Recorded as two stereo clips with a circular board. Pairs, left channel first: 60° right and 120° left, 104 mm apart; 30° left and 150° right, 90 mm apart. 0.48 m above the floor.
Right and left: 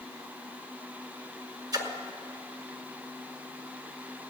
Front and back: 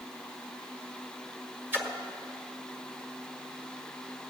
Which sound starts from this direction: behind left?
A splash, at 1.7 s.